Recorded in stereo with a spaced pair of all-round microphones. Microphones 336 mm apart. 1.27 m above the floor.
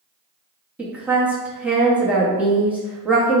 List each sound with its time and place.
0.8 s a woman speaking: 5° right (ahead or behind), 0.7 m